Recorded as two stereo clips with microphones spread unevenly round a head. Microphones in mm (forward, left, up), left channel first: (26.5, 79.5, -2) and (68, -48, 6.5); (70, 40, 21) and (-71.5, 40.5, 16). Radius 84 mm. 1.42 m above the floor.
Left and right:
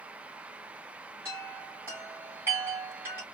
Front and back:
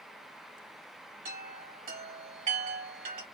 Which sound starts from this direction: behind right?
A chime, at 1.2 s.